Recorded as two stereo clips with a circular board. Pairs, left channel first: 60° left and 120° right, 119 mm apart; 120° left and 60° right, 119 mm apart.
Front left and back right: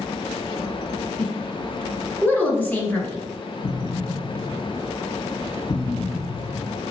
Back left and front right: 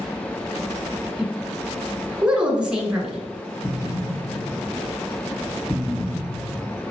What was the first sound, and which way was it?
A woman speaking, 10° left.